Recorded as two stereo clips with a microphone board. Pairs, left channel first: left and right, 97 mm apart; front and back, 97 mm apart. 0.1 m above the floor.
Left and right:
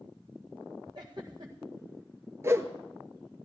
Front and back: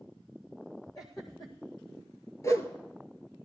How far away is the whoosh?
About 0.9 m.